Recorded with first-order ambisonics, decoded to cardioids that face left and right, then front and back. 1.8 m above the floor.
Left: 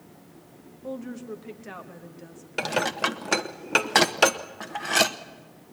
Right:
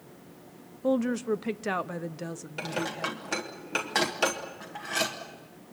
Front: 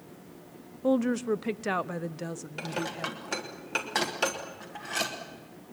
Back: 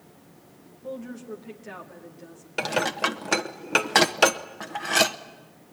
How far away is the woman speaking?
About 0.9 m.